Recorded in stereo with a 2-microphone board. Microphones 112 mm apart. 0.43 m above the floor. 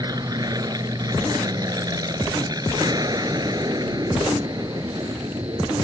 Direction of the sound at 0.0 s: 35° right (ahead or behind).